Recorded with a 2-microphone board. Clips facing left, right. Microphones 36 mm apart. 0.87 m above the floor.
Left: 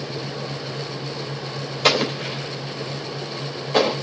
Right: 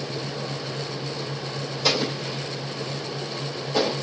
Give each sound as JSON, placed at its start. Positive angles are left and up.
{"t": 1.8, "sound": "an explosion", "side_deg": 55, "distance_m": 3.0}